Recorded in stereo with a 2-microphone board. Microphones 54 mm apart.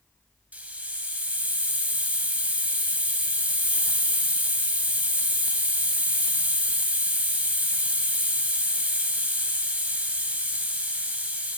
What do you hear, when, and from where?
0.5 s a hiss: 30° right (ahead or behind), 0.9 m